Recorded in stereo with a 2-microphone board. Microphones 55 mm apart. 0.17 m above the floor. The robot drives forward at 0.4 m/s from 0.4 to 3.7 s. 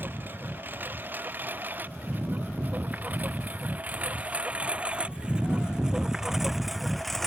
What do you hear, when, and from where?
0.0 s a lawn mower: 35° right (ahead or behind); by 7.3 s 5° left (ahead or behind)